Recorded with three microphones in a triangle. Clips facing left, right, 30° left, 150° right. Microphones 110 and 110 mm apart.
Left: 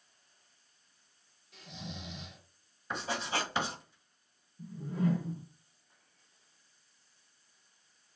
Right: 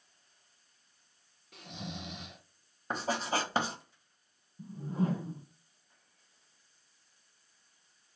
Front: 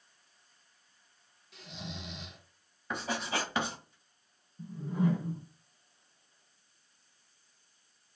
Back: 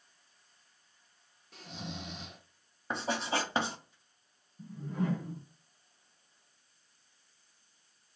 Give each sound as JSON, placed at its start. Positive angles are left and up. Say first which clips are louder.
{"t": 1.5, "sound": "snoring", "louder": "right 2 dB, back 2 dB", "azimuth_deg": -110, "distance_m": 0.8}
{"t": 2.9, "sound": "writing", "louder": "right 3 dB, back 2 dB", "azimuth_deg": -105, "distance_m": 1.3}
{"t": 4.6, "sound": "a whoosh", "louder": "even, front 4 dB", "azimuth_deg": -50, "distance_m": 1.7}